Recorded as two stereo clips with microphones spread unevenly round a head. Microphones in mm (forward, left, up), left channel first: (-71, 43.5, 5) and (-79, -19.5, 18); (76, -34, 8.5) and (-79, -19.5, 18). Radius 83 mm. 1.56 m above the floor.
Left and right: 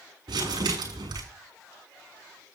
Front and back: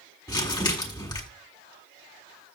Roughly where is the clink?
No clink in this recording.